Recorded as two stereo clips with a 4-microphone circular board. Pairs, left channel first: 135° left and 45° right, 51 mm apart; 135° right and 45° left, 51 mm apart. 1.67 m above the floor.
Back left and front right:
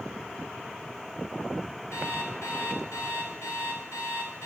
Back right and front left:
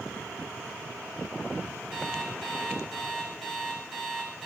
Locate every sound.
1.9 s an alarm clock: 140° left, 2.5 m